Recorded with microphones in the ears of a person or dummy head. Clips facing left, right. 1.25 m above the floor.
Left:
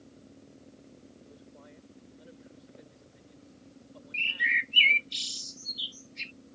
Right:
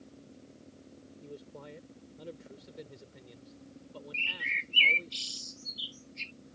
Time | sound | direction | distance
1.2 | a man speaking | 80° right | ?
4.1 | a bird | 20° left (ahead or behind) | ?